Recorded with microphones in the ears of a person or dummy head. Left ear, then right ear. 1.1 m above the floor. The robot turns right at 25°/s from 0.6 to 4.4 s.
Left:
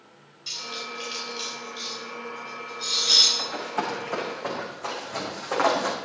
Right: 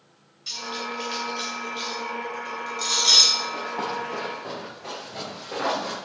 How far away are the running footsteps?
About 6 m.